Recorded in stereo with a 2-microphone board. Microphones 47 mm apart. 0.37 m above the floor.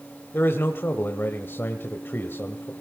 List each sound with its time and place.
0.3 s a man speaking: 50° left (ahead or behind), 1.6 m